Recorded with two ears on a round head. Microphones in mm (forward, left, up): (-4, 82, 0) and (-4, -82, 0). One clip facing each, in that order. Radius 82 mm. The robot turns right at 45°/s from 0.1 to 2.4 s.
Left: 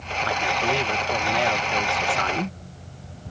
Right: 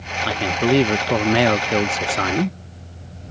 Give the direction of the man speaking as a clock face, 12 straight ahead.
5 o'clock.